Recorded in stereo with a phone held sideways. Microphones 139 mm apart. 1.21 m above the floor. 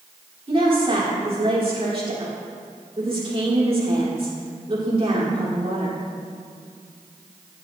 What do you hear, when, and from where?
0.5 s a woman speaking: 40° right (ahead or behind), 3.5 m